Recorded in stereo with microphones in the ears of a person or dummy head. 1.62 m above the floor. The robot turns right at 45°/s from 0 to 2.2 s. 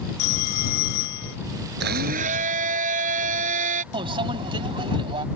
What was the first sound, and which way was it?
A phone ringing, 40° left.